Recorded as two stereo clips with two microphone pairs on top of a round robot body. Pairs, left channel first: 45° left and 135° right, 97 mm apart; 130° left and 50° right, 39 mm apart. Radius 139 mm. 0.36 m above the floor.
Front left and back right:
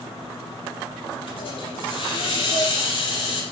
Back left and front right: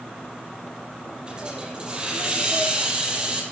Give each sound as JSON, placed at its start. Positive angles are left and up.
{"t": 1.3, "sound": "a hiss", "azimuth_deg": 10, "distance_m": 6.5}